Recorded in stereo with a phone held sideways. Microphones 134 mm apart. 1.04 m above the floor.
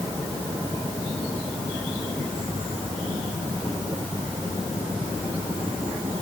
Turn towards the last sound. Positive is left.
No sound to turn to.